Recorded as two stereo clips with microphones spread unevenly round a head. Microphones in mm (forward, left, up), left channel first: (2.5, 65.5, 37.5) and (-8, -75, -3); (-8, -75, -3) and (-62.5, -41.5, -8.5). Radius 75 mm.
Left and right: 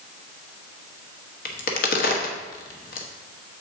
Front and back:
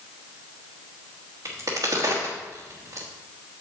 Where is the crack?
85° left, 1.1 m.